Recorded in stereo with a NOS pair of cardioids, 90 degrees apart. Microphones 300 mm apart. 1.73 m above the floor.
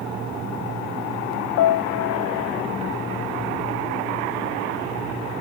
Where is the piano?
70° left.